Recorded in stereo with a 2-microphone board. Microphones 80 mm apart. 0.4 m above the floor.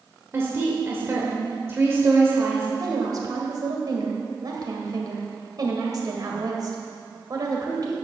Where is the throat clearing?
I don't hear throat clearing.